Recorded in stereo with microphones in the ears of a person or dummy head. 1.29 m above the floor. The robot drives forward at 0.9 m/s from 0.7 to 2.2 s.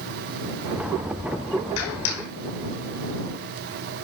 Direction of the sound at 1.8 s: 85° left.